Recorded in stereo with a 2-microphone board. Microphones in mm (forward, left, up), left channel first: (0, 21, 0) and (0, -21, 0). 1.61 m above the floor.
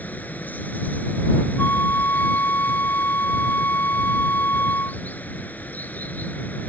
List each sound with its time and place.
0.0 s running water: 40° left (ahead or behind)
1.6 s a flute: 45° left (ahead or behind)